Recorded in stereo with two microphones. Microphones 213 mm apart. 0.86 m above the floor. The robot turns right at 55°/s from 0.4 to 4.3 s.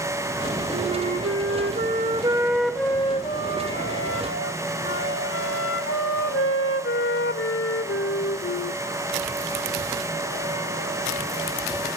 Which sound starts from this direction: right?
A flute, at 0.7 s.